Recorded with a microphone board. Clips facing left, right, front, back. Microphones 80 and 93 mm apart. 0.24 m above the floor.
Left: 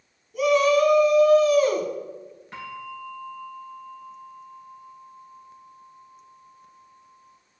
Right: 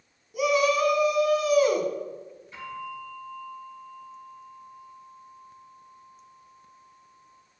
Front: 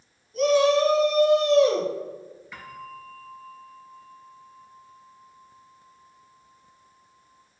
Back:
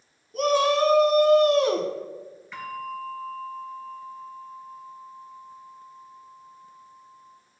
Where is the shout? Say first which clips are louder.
Left 4 dB, front 2 dB; 170° right, 1.7 m.